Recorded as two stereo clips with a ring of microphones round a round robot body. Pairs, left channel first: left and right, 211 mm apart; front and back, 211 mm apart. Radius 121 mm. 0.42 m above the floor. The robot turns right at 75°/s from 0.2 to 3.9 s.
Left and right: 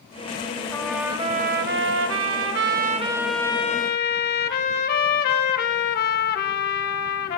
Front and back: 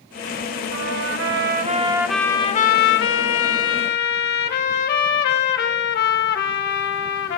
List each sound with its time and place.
0.7 s a trumpet: 165° left, 1.5 m; by 7.4 s 45° left, 1.5 m